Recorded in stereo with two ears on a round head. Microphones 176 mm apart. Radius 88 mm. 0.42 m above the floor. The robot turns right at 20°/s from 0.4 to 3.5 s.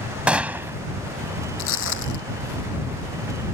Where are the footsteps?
70° left (ahead or behind); by 2.2 s 60° left (ahead or behind).